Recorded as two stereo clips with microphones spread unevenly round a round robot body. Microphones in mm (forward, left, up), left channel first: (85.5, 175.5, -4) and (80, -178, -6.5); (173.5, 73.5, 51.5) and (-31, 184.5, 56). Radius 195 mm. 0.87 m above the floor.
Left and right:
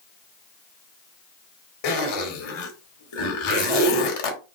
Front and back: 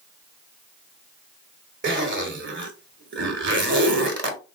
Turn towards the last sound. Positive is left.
turn(degrees=110)